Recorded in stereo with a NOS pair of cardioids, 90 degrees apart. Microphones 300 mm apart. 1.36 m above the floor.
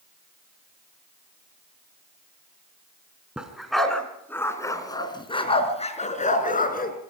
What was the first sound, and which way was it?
A dog barking, 5° right.